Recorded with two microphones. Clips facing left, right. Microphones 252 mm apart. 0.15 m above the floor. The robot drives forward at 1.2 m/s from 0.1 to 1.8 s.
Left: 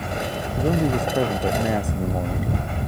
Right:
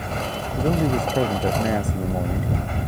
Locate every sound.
0.6 s a man speaking: centre (ahead or behind)